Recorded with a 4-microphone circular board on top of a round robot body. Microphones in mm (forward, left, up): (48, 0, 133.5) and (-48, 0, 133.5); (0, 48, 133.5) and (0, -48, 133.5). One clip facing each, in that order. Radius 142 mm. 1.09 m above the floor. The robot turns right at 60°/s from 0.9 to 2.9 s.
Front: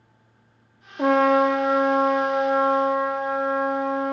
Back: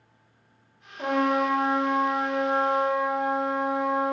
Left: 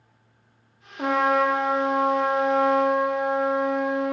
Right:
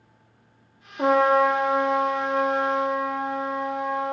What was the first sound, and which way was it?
A trumpet, 10° right.